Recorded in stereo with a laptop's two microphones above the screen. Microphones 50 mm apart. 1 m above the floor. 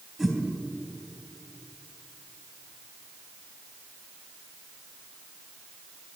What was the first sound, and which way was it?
A whoosh, centre (ahead or behind).